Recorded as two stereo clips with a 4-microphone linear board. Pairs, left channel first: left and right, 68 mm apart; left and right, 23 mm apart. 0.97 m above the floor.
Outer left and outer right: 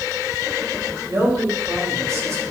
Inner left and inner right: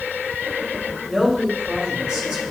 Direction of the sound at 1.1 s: 55° right (ahead or behind).